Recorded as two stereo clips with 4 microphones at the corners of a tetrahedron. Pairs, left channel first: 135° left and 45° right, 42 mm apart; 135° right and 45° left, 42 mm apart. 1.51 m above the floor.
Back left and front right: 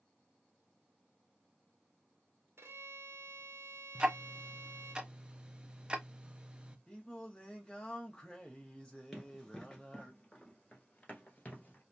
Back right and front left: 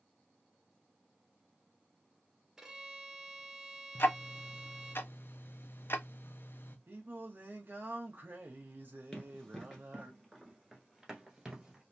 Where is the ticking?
115° right, 0.5 m.